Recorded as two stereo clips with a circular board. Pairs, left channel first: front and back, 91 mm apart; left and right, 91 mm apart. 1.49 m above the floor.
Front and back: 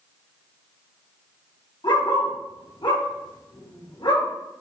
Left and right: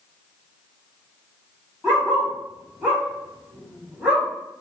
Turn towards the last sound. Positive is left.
turn(degrees=-20)